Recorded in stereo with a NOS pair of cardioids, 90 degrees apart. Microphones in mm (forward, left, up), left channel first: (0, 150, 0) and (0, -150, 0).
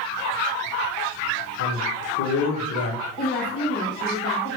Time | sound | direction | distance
1.6 | a woman speaking | 55° left | 1.3 m
3.2 | a woman speaking | 35° left | 0.9 m